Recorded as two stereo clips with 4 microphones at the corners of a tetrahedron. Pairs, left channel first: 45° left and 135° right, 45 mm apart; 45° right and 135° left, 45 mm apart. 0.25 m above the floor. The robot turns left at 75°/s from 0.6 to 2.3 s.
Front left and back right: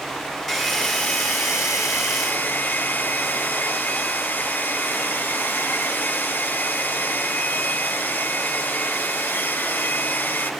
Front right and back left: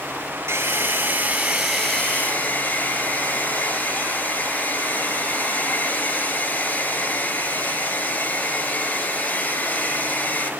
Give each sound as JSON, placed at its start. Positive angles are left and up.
{"t": 0.5, "sound": "a hair dryer", "azimuth_deg": 130, "distance_m": 1.2}